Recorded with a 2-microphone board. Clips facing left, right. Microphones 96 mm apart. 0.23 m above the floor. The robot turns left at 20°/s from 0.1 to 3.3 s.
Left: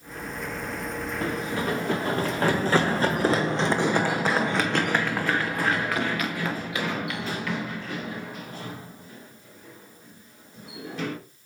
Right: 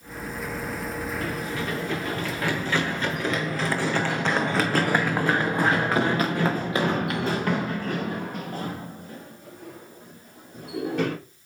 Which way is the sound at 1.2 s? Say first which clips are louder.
Left 2 dB; 30° left (ahead or behind).